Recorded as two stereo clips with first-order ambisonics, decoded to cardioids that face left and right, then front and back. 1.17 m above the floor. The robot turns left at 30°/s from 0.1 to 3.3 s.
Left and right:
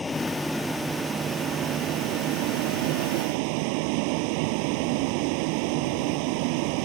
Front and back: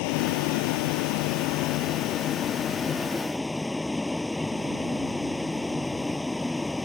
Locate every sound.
0.0 s a vehicle: 10° left; by 6.9 s 85° right